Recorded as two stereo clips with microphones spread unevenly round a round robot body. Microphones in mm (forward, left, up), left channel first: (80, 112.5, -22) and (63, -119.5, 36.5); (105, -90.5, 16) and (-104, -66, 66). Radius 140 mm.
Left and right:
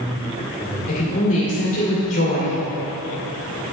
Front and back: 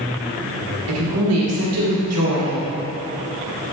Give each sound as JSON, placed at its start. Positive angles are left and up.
{"t": 0.9, "sound": "a woman speaking", "azimuth_deg": 145, "distance_m": 2.0}